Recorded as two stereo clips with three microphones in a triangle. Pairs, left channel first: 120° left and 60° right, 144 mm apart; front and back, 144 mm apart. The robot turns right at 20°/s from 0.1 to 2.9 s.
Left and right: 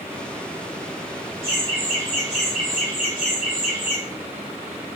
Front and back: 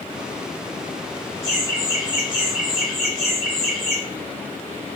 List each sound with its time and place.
1.4 s laughter: 120° right, 1.3 m; by 4.0 s 90° right, 1.3 m